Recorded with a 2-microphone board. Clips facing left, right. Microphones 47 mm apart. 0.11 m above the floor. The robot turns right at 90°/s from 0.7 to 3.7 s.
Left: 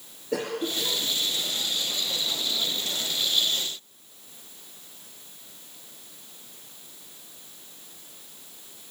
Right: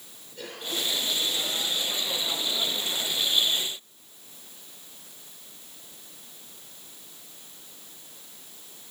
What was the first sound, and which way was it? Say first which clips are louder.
A cough: left 7 dB; 85° left.